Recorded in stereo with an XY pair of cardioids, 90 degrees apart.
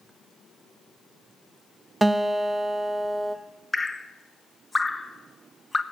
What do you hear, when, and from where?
2.0 s a guitar: 20° right, 0.9 m
3.7 s dripping: 15° left, 0.9 m